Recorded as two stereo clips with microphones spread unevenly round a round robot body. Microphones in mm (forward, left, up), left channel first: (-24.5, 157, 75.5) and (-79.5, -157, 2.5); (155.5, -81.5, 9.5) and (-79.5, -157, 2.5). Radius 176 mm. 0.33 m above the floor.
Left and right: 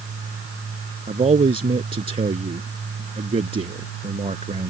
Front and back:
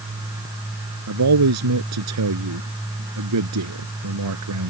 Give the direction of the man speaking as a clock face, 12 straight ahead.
6 o'clock.